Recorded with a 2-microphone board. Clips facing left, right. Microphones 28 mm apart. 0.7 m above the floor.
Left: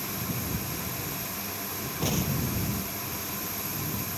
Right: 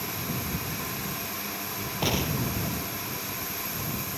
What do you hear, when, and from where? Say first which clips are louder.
2.0 s an explosion: right 2 dB; 40° right (ahead or behind)